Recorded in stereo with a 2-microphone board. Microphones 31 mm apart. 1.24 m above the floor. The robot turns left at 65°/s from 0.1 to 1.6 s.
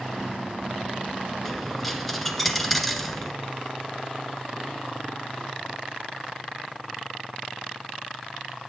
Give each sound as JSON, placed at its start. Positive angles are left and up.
{"t": 1.4, "sound": "a dropped coin", "side_deg": 10, "distance_m": 1.3}